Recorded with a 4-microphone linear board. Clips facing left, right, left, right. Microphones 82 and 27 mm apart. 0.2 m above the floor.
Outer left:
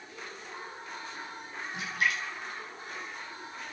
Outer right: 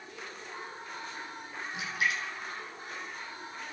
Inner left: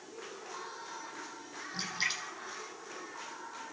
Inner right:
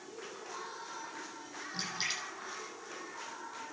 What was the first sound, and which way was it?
A splash, centre (ahead or behind).